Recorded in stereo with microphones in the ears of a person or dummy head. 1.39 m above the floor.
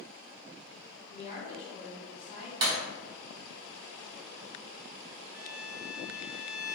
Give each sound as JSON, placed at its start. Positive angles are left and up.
{"t": 1.1, "sound": "a woman speaking", "side_deg": 40, "distance_m": 1.3}
{"t": 2.6, "sound": "breaking glass", "side_deg": -25, "distance_m": 0.9}
{"t": 5.3, "sound": "a violin", "side_deg": 20, "distance_m": 0.9}